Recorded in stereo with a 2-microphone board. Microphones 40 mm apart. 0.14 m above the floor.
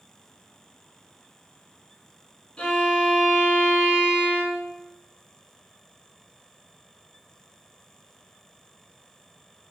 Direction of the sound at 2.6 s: 30° left (ahead or behind).